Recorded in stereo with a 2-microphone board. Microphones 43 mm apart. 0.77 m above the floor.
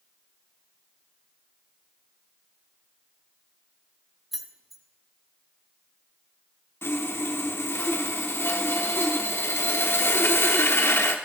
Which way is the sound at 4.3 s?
5° right (ahead or behind).